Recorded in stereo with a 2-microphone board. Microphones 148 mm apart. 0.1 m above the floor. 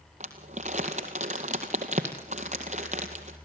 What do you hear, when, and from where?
0.2 s crumpling: 50° right (ahead or behind), 2.0 m